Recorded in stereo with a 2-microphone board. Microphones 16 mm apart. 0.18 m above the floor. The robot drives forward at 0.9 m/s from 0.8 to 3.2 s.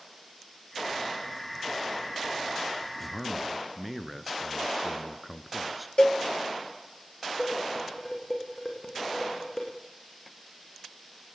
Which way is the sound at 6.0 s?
65° left (ahead or behind).